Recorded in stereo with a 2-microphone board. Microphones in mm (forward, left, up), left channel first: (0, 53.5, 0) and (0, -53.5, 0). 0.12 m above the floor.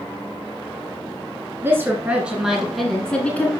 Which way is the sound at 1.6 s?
20° right (ahead or behind).